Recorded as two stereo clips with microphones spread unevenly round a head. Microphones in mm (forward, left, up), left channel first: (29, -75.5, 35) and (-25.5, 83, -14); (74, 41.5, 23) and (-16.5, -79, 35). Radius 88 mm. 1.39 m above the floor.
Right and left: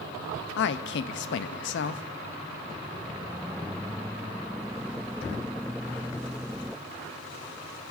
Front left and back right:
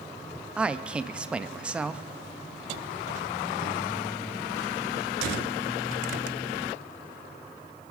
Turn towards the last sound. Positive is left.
turn(degrees=-40)